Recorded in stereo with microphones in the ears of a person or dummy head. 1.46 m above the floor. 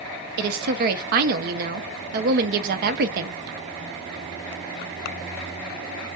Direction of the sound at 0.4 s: 55° right (ahead or behind).